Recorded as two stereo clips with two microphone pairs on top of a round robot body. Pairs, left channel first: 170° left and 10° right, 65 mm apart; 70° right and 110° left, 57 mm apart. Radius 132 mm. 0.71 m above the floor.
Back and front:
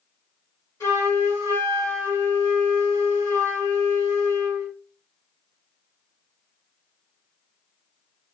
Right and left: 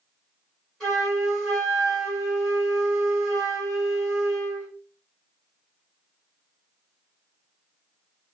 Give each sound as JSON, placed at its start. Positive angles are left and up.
{"t": 0.8, "sound": "a flute", "azimuth_deg": -150, "distance_m": 1.8}